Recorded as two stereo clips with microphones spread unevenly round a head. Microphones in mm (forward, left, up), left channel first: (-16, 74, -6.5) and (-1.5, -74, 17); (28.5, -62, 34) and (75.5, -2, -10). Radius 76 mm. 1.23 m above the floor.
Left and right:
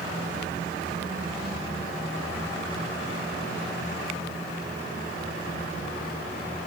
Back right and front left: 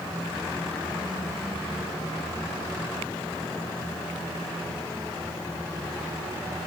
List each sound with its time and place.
Only background noise.